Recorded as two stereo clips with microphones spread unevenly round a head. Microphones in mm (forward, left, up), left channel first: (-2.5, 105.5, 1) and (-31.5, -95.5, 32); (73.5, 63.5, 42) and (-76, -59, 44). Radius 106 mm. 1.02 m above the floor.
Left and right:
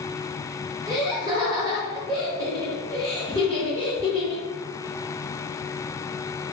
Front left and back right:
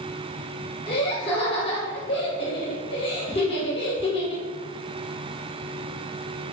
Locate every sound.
0.9 s laughter: 25° right, 1.4 m